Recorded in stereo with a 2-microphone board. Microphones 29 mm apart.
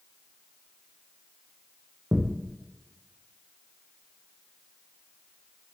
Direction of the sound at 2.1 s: 30° right (ahead or behind).